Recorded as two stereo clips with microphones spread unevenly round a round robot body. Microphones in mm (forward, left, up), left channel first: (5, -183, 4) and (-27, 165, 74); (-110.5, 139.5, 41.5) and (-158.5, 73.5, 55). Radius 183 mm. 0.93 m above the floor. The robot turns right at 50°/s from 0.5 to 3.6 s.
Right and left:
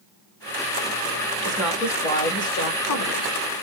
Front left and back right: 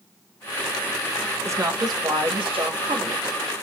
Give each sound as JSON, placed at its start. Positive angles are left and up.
{"t": 1.4, "sound": "a woman speaking", "azimuth_deg": 175, "distance_m": 1.7}